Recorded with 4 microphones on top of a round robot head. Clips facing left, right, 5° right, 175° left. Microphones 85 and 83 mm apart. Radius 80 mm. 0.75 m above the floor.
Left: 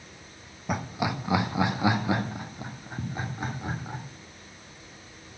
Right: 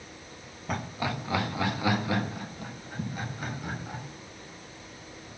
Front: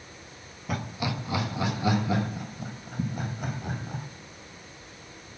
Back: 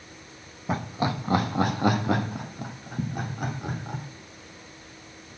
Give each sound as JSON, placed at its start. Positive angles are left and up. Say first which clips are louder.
{"t": 0.7, "sound": "laughter", "louder": "left 3 dB, back 4 dB", "azimuth_deg": 160, "distance_m": 1.1}